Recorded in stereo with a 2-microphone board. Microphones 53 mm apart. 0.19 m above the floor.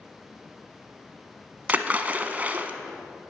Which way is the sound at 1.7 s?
30° right (ahead or behind).